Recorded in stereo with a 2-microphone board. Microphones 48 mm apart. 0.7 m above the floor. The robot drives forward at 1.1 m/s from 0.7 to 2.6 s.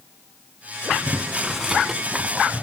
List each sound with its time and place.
0.9 s boiling: 5° right (ahead or behind), 3 m; by 2.6 s 20° right (ahead or behind), 0.9 m